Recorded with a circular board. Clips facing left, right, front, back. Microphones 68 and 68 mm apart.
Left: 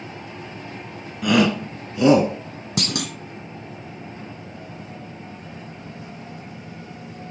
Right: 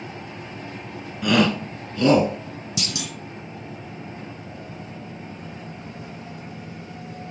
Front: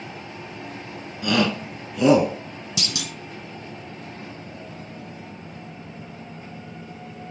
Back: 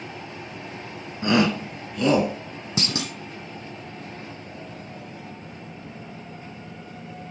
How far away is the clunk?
About 0.7 m.